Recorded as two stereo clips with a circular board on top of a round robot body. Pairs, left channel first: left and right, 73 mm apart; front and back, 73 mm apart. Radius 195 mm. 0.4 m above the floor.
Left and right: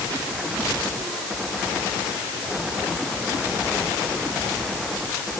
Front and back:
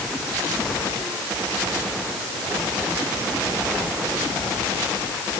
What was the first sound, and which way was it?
Only background noise.